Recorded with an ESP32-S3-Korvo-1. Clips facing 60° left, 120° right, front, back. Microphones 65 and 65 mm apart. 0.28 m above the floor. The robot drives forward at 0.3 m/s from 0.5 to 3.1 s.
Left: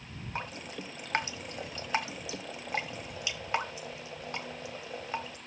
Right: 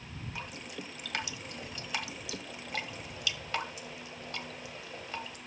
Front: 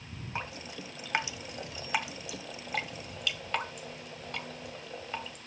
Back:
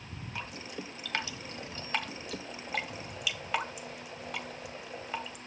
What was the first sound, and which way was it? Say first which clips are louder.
Dripping: left 5 dB, front 2 dB; 45° left.